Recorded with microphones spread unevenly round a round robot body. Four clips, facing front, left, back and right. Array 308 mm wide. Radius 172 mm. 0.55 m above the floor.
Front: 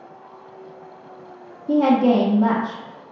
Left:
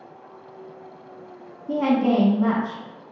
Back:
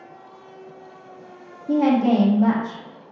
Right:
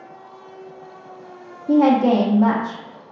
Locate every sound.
1.7 s a woman speaking: 60° right, 0.8 m